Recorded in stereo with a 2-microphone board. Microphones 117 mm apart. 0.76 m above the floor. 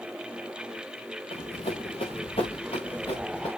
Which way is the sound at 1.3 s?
55° left (ahead or behind).